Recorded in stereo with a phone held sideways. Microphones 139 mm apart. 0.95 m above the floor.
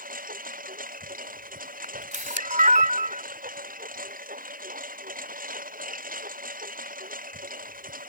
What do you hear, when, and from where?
0.0 s a lawn mower: 85° right
1.8 s a camera shutter: 65° right (ahead or behind)